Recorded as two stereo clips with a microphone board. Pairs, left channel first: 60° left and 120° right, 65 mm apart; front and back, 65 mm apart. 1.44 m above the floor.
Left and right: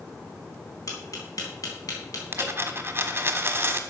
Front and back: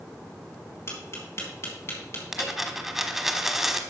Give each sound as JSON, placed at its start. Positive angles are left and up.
{"t": 0.9, "sound": "tapping", "azimuth_deg": 40, "distance_m": 3.5}
{"t": 2.3, "sound": "a dropped coin", "azimuth_deg": -95, "distance_m": 1.2}